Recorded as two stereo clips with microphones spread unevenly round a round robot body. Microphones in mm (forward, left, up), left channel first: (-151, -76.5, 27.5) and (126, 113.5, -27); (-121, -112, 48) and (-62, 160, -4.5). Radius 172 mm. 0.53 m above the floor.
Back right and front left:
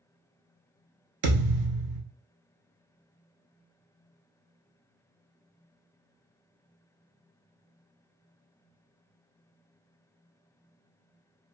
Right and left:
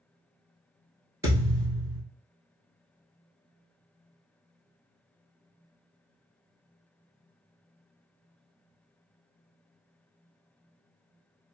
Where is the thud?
10° right, 1.1 m.